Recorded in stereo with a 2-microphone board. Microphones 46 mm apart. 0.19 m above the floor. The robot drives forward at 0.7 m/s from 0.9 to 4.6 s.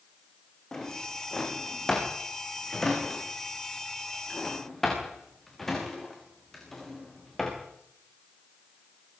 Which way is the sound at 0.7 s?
15° left (ahead or behind).